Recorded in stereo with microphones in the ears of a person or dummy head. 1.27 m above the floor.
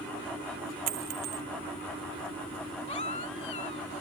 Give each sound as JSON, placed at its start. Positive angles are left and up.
{"t": 0.9, "sound": "a dropped coin", "side_deg": -40}
{"t": 2.9, "sound": "a baby crying", "side_deg": 30}